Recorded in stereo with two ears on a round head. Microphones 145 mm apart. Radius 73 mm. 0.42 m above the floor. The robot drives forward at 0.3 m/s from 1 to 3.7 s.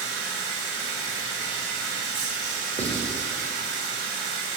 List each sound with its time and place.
0.0 s running water: 75° right (ahead or behind), 1.9 m; by 4.6 s 70° right (ahead or behind), 2.0 m
2.8 s writing: 20° right (ahead or behind), 1.2 m